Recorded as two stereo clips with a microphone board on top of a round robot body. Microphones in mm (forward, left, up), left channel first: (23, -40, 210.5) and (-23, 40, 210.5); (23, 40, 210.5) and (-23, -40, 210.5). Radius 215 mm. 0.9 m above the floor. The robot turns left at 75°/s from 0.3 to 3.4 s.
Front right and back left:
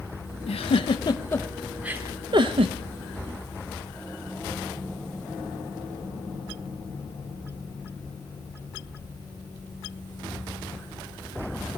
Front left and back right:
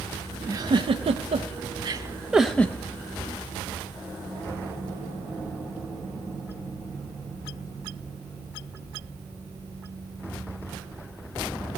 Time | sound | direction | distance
0.5 | a giggle | 60° right | 0.6 m